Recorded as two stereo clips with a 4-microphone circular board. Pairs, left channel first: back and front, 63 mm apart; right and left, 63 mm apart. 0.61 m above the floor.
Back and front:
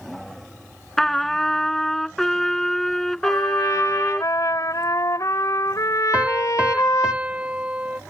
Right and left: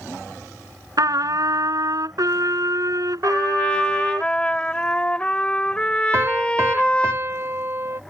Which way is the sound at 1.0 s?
95° left.